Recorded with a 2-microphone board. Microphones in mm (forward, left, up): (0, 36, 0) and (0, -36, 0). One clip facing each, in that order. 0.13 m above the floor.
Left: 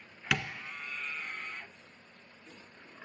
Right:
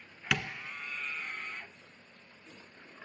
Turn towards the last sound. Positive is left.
turn(degrees=0)  # may be behind; listen again after turning